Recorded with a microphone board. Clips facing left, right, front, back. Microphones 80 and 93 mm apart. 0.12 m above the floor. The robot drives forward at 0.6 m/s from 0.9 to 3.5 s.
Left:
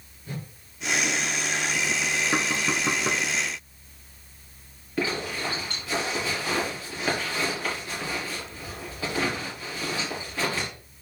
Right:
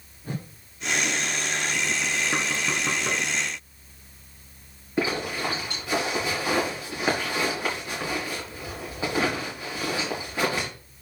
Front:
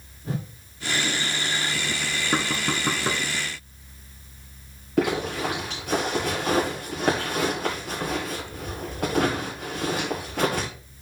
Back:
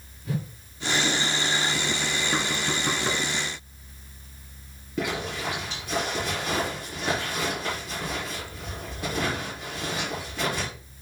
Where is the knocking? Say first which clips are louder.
Left 1 dB, front 5 dB; 20° left, 1.4 m; by 3.3 s 40° left, 1.1 m.